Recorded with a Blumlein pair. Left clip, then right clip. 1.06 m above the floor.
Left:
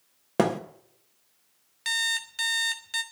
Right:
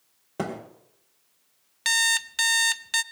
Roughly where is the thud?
Ahead left.